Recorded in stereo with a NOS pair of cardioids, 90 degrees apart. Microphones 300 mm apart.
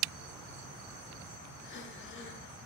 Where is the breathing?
40° left, 1.2 m.